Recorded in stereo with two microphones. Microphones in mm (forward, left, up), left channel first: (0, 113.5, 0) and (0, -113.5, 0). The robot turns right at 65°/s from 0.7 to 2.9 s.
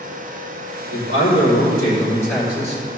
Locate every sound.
0.9 s a man speaking: 85° left, 3.5 m; by 2.8 s 150° right, 3.5 m